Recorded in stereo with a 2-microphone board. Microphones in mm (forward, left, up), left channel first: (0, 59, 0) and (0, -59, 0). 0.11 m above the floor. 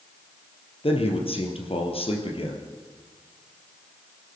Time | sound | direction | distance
0.8 | a man speaking | 55° left (ahead or behind) | 2.5 m